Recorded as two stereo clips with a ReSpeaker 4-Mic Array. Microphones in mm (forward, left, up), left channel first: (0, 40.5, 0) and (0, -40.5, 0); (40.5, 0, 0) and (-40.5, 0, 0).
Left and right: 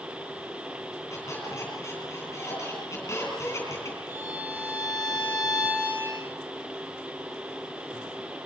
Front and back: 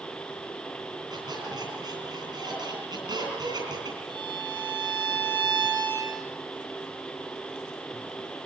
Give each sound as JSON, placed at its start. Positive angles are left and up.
{"t": 1.1, "sound": "a squeak", "azimuth_deg": 145, "distance_m": 10.0}
{"t": 4.1, "sound": "a violin", "azimuth_deg": -155, "distance_m": 6.0}